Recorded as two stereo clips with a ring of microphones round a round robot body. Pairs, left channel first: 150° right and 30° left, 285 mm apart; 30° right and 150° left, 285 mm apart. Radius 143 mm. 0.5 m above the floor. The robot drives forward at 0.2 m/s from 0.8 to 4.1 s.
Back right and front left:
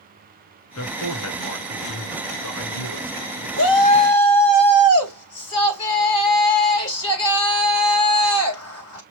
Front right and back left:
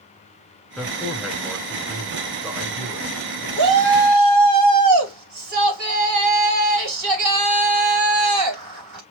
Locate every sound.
0.8 s a man speaking: 120° right, 2.5 m; by 3.5 s 130° right, 2.5 m
3.6 s a shout: 175° left, 3 m